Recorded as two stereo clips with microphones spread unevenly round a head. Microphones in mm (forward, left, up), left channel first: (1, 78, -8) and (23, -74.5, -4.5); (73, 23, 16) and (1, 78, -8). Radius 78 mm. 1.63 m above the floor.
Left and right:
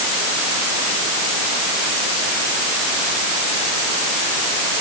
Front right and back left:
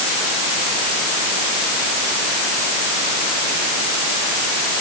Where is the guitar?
No guitar in this recording.